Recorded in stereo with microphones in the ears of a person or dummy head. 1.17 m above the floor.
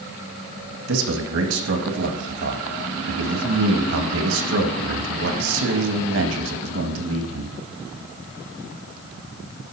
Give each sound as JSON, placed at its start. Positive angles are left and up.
{"t": 0.9, "sound": "a man speaking", "side_deg": -70, "distance_m": 1.8}